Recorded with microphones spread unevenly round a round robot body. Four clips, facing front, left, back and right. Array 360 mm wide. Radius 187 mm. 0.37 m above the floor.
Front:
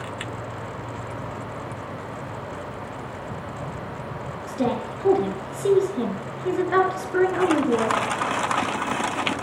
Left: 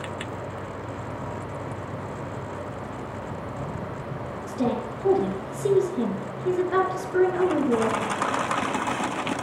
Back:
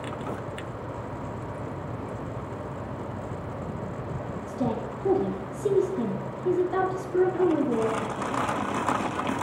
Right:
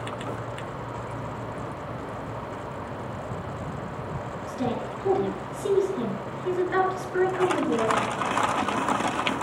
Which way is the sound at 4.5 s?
15° left.